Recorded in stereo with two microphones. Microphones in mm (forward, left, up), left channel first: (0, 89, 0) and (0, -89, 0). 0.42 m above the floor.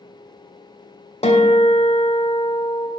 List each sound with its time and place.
1.2 s a guitar: 35° left (ahead or behind), 1.5 m